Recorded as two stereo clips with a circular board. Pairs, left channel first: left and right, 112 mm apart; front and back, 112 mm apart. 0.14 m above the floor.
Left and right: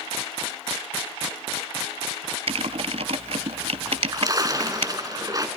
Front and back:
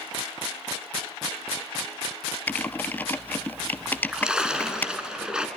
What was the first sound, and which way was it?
Typing on a keyboard, 75° right.